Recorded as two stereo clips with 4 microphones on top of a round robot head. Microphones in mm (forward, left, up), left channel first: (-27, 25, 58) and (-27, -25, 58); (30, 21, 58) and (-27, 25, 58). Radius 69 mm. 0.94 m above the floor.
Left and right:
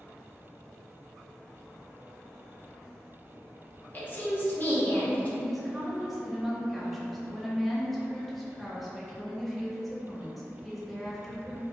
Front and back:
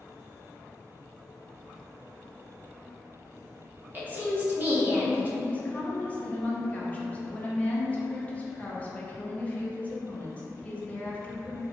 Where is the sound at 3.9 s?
130° left, 0.9 m.